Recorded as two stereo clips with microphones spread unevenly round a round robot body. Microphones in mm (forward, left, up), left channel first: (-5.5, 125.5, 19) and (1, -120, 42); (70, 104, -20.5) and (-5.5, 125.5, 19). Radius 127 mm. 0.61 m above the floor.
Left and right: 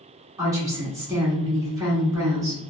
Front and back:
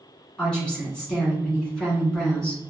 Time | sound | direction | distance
0.4 | a woman speaking | 15° right | 1.3 m